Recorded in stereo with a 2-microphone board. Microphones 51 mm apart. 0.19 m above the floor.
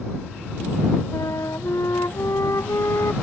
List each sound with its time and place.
1.1 s a flute: 85° left